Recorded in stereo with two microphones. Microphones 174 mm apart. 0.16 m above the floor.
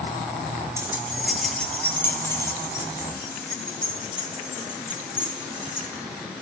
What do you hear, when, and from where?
0.8 s keys jangling: 15° right (ahead or behind), 2 m; by 5.8 s 30° left (ahead or behind), 8 m